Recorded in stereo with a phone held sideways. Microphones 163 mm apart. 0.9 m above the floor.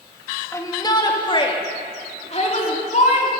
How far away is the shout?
About 1.6 m.